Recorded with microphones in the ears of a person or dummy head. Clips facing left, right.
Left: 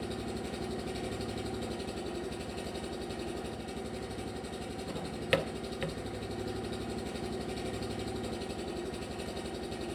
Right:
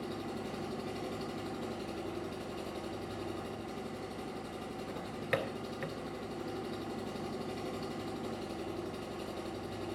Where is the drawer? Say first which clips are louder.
Left 4 dB; 45° left (ahead or behind), 0.6 m.